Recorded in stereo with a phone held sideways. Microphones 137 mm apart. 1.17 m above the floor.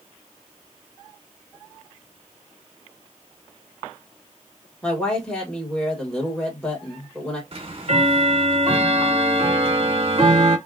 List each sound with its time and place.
4.8 s a woman speaking: 10° left (ahead or behind), 1.7 m
7.5 s ticking: 45° right (ahead or behind), 0.6 m